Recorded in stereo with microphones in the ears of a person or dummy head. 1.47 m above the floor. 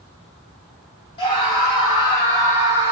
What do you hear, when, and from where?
1.2 s a scream: 30° left (ahead or behind), 2.5 m; by 2.9 s 15° left (ahead or behind), 3 m